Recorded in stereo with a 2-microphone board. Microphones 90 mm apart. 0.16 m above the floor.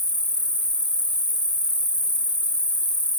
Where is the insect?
60° right (ahead or behind), 1.6 m.